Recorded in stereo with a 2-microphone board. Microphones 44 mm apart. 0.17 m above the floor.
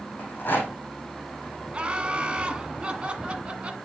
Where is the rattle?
50° left (ahead or behind), 3 m.